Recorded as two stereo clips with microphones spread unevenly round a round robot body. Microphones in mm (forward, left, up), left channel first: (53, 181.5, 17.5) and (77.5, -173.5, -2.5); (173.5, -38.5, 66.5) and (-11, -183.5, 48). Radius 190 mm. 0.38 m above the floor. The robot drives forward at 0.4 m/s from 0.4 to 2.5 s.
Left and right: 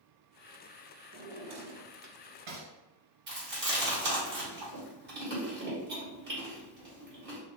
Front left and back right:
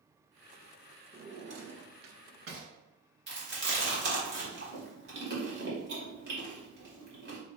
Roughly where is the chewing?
Behind right.